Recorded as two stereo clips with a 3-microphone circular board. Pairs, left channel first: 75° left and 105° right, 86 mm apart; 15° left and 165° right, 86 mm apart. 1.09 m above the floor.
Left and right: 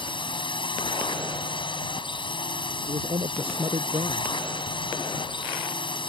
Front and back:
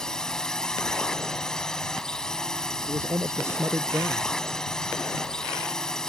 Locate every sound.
0.0 s a drone: 100° left
2.9 s a man speaking: 105° right